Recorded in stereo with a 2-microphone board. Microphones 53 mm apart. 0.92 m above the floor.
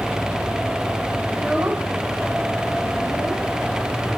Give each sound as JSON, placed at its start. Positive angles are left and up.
{"t": 1.3, "sound": "a child speaking", "side_deg": -15, "distance_m": 1.5}